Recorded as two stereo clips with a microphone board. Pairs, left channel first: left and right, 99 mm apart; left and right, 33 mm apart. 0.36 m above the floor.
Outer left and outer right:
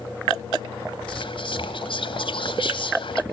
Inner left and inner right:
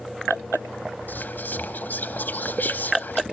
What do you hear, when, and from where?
1.1 s whispering: 60° left (ahead or behind), 1.9 m